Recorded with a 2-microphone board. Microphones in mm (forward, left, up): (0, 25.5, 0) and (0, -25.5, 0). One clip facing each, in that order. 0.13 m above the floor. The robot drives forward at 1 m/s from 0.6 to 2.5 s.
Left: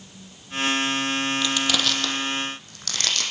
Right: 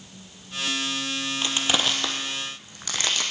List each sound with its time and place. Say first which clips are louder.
1.4 s crushing: left 1 dB; 30° right (ahead or behind), 1.3 m; by 3.2 s 20° right (ahead or behind), 2 m